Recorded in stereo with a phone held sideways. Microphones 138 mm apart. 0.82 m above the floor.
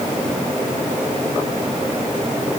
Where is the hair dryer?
I don't hear a hair dryer.